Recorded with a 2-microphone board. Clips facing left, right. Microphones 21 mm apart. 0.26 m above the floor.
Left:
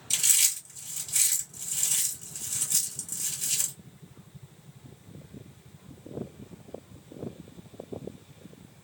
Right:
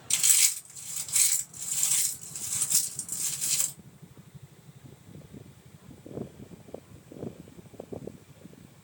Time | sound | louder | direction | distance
0.1 | chewing | even | 5° right (ahead or behind) | 2 m